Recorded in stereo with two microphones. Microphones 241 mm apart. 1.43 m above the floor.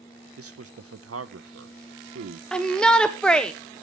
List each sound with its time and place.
0.4 s a man speaking: 70° right (ahead or behind), 0.8 m
2.5 s a shout: 5° left (ahead or behind), 0.7 m